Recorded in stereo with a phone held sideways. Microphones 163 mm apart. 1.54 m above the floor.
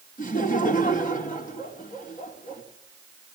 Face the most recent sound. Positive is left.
turn(degrees=55)  # may be behind; listen again after turning